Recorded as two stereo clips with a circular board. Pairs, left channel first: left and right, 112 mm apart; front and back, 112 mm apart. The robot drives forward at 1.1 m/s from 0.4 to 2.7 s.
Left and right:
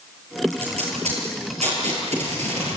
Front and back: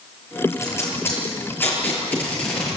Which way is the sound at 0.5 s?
65° right.